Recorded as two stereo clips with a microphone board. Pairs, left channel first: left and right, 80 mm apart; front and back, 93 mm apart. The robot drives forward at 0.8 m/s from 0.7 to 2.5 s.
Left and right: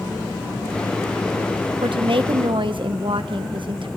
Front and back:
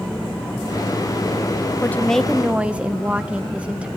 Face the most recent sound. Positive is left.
turn(degrees=-100)